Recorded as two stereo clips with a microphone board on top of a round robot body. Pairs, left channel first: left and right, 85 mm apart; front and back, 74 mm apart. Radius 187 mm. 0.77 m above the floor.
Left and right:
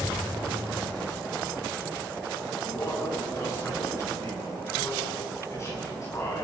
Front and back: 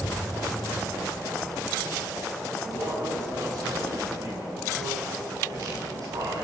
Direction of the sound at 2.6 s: 145° left.